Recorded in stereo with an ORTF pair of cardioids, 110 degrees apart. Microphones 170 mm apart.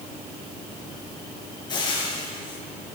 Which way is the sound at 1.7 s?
25° left.